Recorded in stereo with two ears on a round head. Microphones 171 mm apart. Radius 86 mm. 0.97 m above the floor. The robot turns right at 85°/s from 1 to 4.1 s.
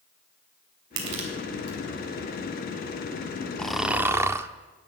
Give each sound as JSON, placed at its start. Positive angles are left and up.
{"t": 1.0, "sound": "crushing", "side_deg": -60, "distance_m": 3.0}
{"t": 3.6, "sound": "snoring", "side_deg": 5, "distance_m": 0.5}